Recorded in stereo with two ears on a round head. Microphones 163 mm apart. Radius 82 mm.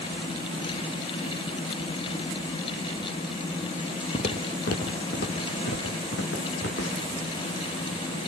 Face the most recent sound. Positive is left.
turn(degrees=75)  # may be behind; listen again after turning